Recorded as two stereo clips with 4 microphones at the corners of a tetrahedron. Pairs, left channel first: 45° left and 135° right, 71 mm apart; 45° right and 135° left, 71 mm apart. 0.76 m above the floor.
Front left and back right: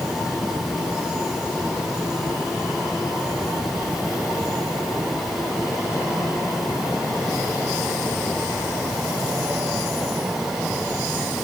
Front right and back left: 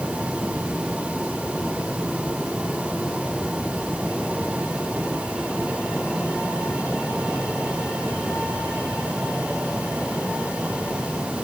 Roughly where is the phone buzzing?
I don't hear a phone buzzing.